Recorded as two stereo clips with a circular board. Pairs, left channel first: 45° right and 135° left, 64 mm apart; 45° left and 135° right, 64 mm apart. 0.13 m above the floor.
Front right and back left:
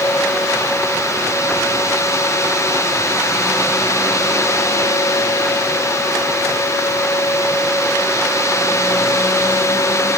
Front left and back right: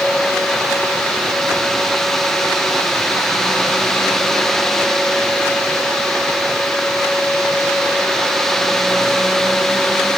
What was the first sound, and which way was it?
Only background noise.